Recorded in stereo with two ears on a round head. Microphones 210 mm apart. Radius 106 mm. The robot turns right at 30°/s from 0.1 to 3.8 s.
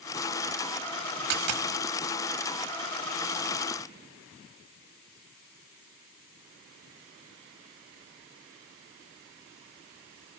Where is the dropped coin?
80° right, 1.3 m; by 1.7 s 85° right, 1.3 m.